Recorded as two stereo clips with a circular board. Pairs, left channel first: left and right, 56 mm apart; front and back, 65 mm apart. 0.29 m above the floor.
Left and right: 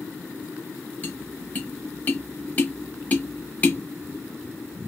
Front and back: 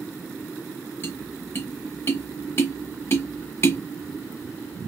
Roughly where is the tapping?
Ahead left.